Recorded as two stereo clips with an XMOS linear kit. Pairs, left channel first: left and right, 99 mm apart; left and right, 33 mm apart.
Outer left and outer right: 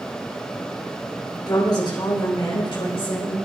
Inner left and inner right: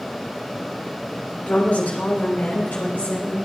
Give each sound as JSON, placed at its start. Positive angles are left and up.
{"t": 1.5, "sound": "a woman speaking", "side_deg": 45, "distance_m": 2.5}